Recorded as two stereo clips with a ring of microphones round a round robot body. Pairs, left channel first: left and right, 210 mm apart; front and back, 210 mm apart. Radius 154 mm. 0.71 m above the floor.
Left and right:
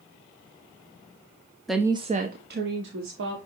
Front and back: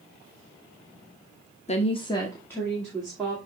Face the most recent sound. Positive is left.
turn(degrees=-90)